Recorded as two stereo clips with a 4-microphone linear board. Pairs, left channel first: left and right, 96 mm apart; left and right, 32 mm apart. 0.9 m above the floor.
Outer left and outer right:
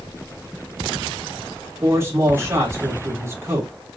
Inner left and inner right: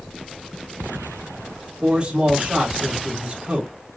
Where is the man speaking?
30° right (ahead or behind), 2.5 m.